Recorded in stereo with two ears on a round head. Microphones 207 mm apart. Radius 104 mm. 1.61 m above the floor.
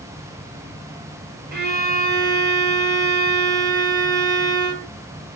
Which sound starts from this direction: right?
A violin, at 1.5 s.